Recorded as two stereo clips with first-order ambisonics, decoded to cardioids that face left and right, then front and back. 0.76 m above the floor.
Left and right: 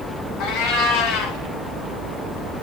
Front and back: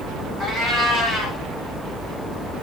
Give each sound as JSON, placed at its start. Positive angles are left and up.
{"t": 0.4, "sound": "a cat meowing", "azimuth_deg": 75, "distance_m": 1.9}